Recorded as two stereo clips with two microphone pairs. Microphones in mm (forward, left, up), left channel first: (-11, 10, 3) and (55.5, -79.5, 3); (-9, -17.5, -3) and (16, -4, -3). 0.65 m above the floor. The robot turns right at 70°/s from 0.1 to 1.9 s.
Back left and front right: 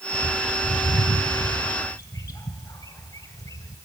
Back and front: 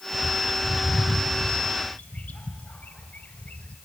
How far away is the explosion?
I don't hear an explosion.